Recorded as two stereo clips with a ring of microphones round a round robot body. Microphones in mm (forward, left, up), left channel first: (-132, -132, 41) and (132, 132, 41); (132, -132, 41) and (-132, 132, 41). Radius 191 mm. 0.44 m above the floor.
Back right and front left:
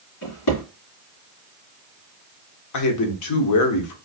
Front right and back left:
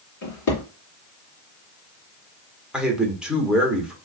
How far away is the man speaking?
About 1.0 m.